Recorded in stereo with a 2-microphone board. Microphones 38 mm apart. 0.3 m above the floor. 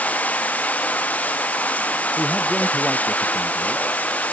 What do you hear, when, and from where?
0.0 s running water: 40° left (ahead or behind)
2.2 s a man speaking: 10° left (ahead or behind)